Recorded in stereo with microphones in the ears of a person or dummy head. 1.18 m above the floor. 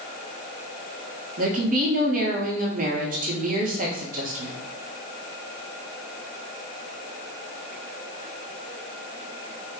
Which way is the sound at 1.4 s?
40° right (ahead or behind).